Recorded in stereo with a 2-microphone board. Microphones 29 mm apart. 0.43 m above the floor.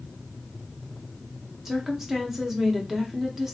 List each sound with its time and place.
1.6 s a woman speaking: 10° right (ahead or behind), 0.8 m